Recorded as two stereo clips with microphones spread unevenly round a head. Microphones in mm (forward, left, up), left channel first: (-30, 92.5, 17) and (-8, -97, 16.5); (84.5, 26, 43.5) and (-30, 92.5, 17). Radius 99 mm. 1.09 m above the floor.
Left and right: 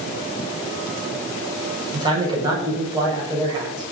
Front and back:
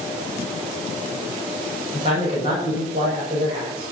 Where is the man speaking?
150° right, 7 m.